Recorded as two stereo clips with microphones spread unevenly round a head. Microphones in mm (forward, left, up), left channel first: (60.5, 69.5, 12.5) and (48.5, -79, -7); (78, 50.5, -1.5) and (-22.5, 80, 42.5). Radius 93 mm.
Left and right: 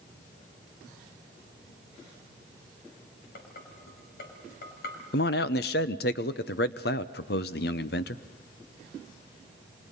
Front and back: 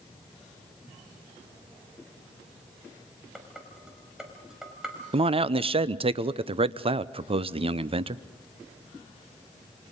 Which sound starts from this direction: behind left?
A man speaking, at 5.1 s.